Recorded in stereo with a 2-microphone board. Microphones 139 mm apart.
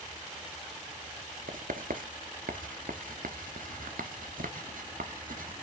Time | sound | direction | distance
1.5 | writing | 80° right | 0.9 m